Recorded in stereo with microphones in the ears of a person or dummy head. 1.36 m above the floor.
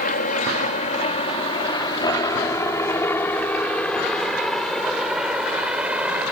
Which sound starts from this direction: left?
A helicopter, at 0.0 s.